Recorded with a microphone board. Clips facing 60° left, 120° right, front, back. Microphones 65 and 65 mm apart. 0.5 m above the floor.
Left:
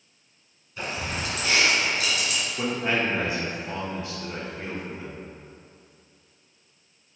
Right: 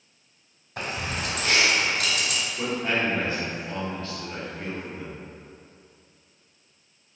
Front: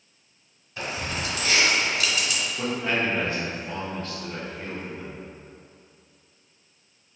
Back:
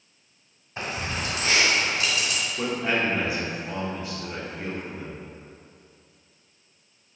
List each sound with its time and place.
0.8 s keys jangling: 120° right, 1.2 m
2.6 s a man speaking: 115° left, 1.0 m